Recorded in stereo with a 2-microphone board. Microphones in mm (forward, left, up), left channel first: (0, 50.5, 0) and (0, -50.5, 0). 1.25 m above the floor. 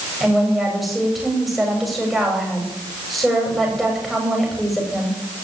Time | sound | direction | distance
0.2 | a woman speaking | centre (ahead or behind) | 7 m